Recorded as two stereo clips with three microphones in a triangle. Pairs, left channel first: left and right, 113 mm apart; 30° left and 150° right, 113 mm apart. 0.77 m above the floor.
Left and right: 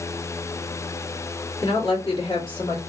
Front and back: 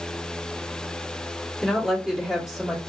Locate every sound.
1.6 s a woman speaking: 120° left, 2 m